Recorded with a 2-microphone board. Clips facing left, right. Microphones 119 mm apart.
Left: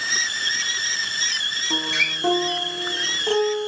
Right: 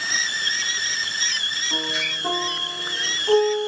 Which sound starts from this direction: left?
A guitar, at 1.7 s.